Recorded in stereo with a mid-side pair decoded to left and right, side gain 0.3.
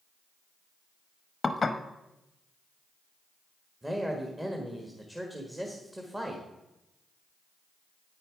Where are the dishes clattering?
45° left, 0.8 m.